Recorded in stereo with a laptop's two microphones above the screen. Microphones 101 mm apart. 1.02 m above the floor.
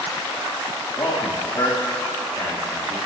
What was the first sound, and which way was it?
A man speaking, 45° left (ahead or behind).